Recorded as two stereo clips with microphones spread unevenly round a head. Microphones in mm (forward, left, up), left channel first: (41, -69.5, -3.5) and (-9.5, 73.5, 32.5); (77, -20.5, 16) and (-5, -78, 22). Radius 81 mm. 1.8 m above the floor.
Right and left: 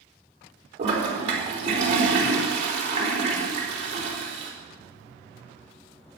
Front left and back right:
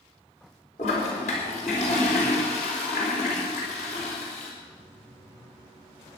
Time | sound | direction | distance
0.8 | a toilet flushing | 70° left | 4 m